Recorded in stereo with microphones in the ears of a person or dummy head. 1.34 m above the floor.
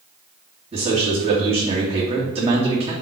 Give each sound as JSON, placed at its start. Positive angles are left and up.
{"t": 0.7, "sound": "a man speaking", "side_deg": -25, "distance_m": 2.5}